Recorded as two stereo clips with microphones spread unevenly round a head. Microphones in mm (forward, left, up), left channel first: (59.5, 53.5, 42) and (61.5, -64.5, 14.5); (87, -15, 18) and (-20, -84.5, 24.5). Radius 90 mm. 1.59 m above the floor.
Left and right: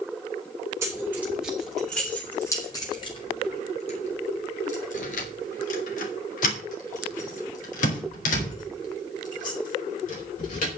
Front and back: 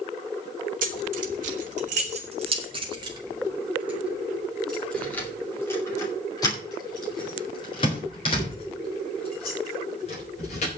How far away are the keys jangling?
About 1.9 m.